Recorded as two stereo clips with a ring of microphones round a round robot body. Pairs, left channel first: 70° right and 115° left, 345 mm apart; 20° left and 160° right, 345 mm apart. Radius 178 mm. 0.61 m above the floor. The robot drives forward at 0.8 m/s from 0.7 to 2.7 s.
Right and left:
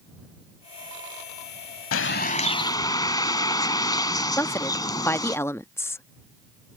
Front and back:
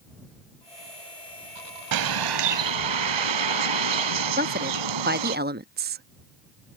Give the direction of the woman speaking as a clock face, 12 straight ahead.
5 o'clock.